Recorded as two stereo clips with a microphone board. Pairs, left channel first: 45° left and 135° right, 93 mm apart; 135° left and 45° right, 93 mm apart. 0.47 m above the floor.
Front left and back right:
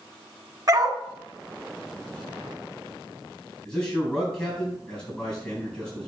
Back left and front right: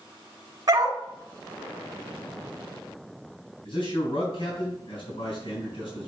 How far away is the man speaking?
About 3.5 m.